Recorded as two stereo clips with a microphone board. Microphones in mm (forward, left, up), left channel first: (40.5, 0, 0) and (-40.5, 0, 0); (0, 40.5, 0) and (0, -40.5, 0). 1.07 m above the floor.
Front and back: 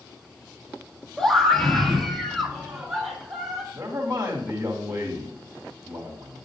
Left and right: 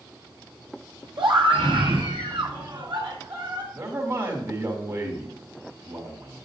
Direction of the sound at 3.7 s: 115° right.